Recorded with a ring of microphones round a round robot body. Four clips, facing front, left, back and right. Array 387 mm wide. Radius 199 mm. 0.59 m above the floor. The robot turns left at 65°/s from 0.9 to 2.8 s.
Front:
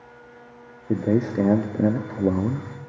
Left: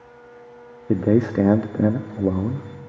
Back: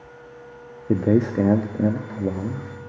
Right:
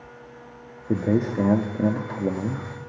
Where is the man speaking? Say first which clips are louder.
Left 4 dB, back 3 dB; 130° left, 0.6 m; by 2.7 s 15° left, 0.6 m.